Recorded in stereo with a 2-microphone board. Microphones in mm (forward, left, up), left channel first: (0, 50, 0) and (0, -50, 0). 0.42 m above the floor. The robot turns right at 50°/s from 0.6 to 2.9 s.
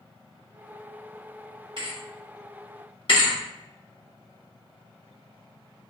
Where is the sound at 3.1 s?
55° left (ahead or behind), 0.9 m.